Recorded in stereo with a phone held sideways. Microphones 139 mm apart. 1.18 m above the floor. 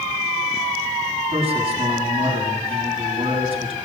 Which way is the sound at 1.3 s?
40° right (ahead or behind).